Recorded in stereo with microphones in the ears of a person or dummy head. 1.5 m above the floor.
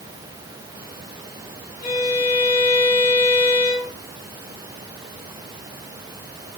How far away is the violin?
About 1.7 m.